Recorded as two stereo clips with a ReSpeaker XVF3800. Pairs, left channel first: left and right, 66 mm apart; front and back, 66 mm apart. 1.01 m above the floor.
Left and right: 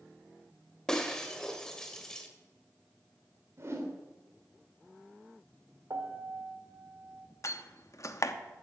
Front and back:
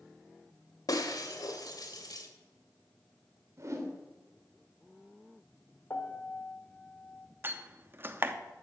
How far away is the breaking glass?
About 1.7 m.